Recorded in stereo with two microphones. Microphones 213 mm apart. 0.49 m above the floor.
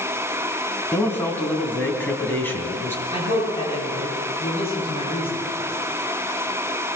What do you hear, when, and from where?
0.9 s a man speaking: 10° left (ahead or behind), 3 m
3.1 s a man speaking: 25° left (ahead or behind), 10 m